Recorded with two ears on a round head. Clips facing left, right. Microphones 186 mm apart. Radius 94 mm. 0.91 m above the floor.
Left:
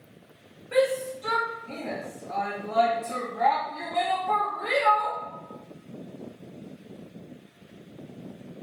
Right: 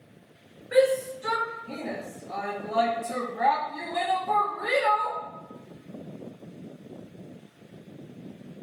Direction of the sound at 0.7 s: 15° right (ahead or behind).